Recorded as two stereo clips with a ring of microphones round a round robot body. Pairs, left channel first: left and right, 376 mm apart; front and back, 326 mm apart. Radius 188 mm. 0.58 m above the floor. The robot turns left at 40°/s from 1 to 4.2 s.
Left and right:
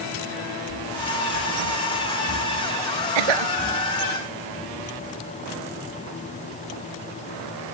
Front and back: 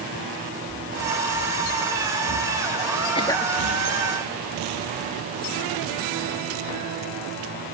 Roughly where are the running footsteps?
Right.